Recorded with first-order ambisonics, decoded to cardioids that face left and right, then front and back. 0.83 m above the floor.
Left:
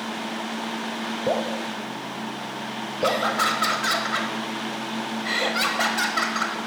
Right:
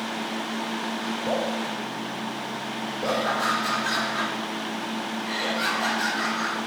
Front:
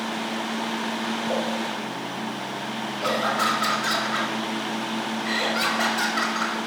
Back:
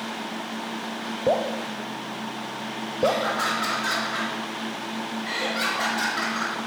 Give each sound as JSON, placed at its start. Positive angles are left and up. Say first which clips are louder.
{"t": 1.3, "sound": "dripping", "louder": "left 2 dB, back 6 dB", "azimuth_deg": 155, "distance_m": 0.5}
{"t": 3.0, "sound": "laughter", "louder": "left 3 dB, even", "azimuth_deg": 80, "distance_m": 1.4}